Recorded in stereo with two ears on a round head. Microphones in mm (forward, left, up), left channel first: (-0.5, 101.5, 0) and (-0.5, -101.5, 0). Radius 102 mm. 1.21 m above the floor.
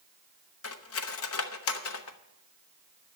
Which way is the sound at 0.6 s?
65° left (ahead or behind).